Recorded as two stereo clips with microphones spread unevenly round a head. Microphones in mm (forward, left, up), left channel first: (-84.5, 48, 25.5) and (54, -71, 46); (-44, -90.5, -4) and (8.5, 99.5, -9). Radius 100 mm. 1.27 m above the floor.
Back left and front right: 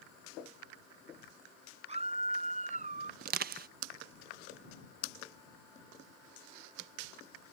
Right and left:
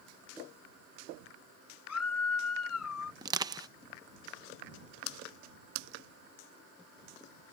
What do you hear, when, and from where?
1.9 s a scream: 95° right; by 3.1 s 90° right
3.2 s crushing: straight ahead